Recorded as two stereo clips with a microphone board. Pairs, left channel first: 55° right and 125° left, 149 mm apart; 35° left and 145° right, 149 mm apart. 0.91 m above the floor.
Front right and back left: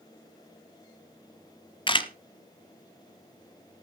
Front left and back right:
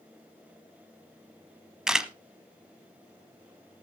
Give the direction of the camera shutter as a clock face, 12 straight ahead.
2 o'clock.